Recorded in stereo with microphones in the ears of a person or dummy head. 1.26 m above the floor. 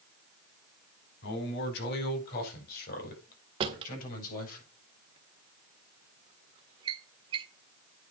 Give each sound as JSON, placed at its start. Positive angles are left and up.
{"t": 1.2, "sound": "a man speaking", "side_deg": 65, "distance_m": 4.0}
{"t": 3.6, "sound": "a drawer", "side_deg": -35, "distance_m": 1.6}